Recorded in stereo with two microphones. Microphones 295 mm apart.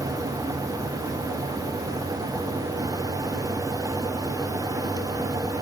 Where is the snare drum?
No snare drum in this recording.